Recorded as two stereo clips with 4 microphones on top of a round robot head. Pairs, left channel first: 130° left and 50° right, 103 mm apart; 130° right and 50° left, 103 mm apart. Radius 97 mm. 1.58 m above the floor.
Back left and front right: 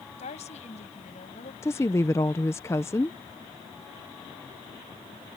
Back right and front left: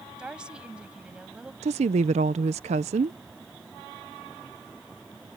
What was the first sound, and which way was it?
A woman speaking, 135° left.